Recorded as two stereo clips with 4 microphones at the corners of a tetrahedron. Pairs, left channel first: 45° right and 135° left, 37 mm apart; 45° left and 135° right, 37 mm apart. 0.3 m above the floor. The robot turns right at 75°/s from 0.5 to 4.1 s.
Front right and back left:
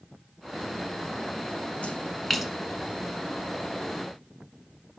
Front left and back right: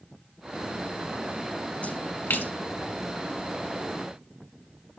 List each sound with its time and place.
1.8 s a splash: straight ahead, 0.6 m; by 2.5 s 55° left, 0.6 m